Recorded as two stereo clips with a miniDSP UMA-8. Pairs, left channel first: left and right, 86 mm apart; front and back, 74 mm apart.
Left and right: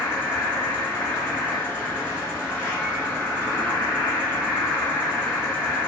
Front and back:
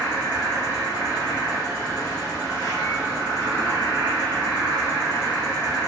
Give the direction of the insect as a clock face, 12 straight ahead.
12 o'clock.